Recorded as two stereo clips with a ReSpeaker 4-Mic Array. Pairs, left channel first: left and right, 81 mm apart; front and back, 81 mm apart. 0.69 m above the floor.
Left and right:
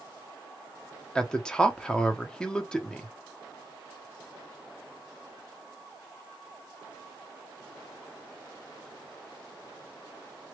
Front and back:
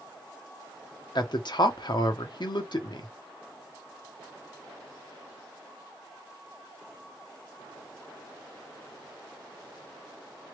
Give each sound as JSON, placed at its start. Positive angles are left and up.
{"t": 1.1, "sound": "a man speaking", "azimuth_deg": 10, "distance_m": 0.9}